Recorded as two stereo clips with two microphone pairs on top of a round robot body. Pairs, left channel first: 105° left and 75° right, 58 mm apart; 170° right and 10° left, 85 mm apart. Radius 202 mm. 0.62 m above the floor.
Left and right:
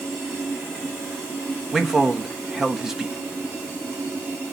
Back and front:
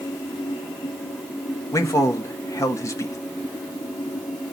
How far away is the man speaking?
About 1.6 m.